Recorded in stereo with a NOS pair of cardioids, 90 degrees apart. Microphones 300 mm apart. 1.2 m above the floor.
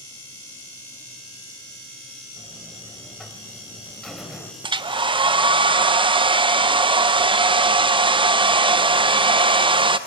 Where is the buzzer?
Straight ahead, 2.5 m.